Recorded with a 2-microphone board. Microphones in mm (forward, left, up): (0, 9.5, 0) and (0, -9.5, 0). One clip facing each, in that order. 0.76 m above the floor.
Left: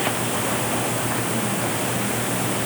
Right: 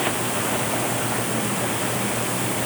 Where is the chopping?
I don't hear chopping.